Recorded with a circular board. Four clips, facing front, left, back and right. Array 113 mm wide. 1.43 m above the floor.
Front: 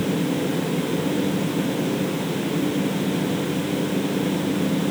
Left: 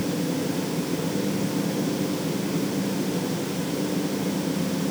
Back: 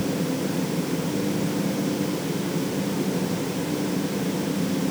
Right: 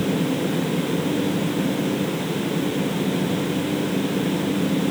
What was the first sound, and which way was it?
Only background noise.